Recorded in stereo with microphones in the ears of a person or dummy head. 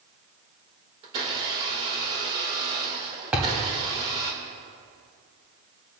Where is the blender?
35° right (ahead or behind), 2 m.